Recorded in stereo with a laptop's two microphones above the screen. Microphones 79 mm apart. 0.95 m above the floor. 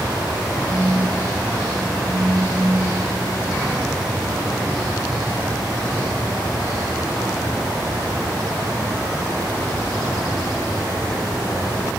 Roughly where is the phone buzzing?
Centre.